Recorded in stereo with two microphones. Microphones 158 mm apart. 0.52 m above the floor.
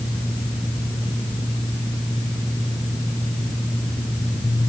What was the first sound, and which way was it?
Only background noise.